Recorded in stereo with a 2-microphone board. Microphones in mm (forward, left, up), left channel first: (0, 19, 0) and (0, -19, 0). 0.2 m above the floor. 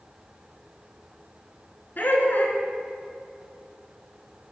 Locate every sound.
2.0 s laughter: 55° left (ahead or behind), 2.5 m